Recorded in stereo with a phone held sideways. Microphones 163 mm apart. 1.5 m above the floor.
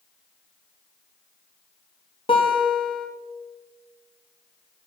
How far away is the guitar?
About 3 m.